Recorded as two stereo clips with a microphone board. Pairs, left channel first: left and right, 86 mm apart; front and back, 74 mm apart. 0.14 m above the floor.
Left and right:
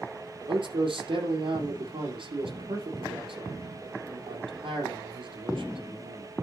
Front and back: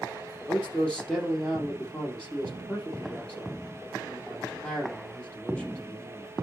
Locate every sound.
0.5 s a man speaking: 75° right, 3.5 m